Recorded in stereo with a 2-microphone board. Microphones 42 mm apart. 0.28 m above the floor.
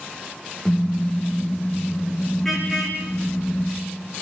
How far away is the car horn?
About 4.5 m.